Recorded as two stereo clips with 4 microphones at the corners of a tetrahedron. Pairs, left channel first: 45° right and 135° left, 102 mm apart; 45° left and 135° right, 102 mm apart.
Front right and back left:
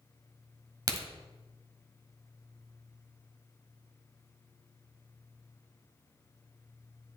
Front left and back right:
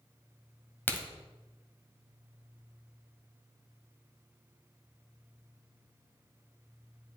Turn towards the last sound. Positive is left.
turn(degrees=110)